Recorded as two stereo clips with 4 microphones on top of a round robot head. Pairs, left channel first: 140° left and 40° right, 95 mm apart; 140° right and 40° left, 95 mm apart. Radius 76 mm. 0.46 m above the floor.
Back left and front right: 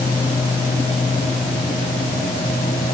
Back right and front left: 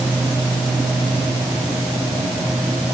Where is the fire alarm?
I don't hear a fire alarm.